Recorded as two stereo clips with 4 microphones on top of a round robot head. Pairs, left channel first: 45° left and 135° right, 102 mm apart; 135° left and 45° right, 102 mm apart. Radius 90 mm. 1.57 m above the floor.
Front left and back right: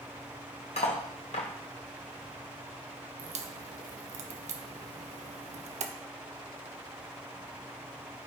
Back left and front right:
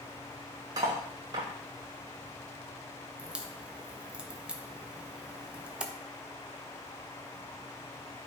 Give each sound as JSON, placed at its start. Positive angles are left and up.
{"t": 0.8, "sound": "cutlery clinking", "azimuth_deg": 10, "distance_m": 1.2}
{"t": 3.2, "sound": "a crack", "azimuth_deg": -125, "distance_m": 1.1}